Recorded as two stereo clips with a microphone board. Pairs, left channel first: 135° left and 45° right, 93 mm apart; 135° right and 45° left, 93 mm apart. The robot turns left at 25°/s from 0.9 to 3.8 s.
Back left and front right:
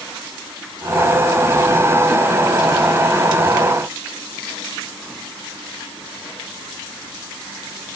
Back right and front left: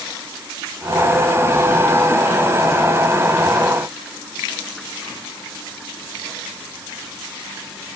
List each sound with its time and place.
Only background noise.